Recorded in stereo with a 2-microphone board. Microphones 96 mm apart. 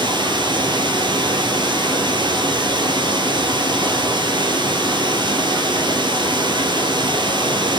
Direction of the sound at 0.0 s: 55° right (ahead or behind).